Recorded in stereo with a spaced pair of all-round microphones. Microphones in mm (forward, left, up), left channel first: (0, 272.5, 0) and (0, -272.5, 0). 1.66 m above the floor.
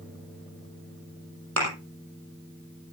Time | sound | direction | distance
1.6 | a thud | 25° right (ahead or behind) | 5.5 m